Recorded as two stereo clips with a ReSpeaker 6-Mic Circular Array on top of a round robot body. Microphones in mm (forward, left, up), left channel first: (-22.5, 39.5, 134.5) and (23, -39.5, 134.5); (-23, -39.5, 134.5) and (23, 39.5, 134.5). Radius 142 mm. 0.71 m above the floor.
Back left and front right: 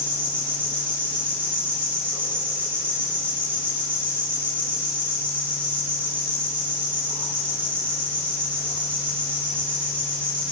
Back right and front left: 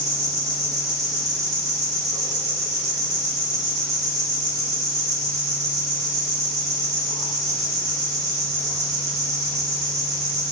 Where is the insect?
10° left, 3.5 m.